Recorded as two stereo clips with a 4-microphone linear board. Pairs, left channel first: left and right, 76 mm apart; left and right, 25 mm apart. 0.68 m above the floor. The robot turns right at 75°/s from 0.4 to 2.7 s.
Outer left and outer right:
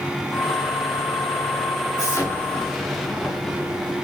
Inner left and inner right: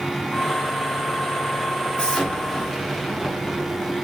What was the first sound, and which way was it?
An explosion, 125° left.